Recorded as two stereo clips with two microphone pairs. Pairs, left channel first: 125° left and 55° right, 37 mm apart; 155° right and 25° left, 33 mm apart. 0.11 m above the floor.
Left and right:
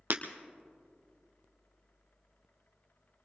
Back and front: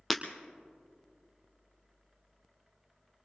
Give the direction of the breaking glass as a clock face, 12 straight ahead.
2 o'clock.